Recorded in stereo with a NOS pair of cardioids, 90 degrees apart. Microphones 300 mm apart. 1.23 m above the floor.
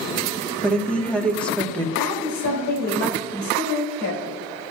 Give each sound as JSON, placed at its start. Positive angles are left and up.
{"t": 0.6, "sound": "a woman speaking", "azimuth_deg": 5, "distance_m": 1.5}
{"t": 2.0, "sound": "a woman speaking", "azimuth_deg": 65, "distance_m": 3.0}